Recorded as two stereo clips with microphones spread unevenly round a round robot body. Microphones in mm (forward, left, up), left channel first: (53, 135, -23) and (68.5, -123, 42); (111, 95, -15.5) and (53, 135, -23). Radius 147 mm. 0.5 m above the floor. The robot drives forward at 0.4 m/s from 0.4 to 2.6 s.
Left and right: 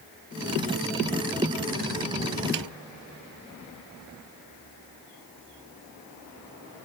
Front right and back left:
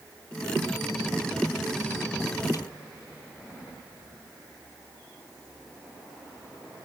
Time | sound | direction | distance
2.5 | a snare drum | 100° right | ?